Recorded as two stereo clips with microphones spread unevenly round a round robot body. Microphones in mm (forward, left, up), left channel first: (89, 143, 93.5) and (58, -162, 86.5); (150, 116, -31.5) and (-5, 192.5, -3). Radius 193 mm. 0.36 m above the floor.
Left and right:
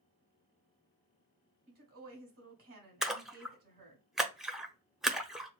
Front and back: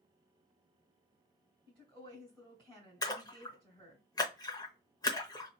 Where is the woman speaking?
125° right, 1.7 m.